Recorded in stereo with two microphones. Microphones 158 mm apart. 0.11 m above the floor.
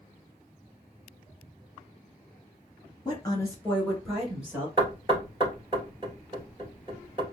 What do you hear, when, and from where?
3.0 s a woman speaking: 25° left (ahead or behind), 1.5 m; by 4.7 s 15° right (ahead or behind), 1.5 m
4.8 s knocking: 30° right (ahead or behind), 1.4 m